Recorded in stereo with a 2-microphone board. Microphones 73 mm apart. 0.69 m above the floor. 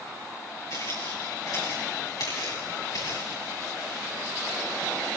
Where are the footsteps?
60° left (ahead or behind), 5.5 m; by 3.4 s 70° left (ahead or behind), 6.5 m.